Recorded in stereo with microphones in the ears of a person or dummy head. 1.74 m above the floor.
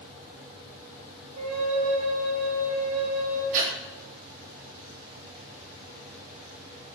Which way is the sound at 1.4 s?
55° right (ahead or behind).